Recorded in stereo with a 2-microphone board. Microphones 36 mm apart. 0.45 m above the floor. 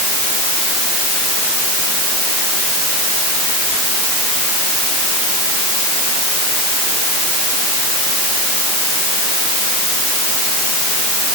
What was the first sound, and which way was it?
Only background noise.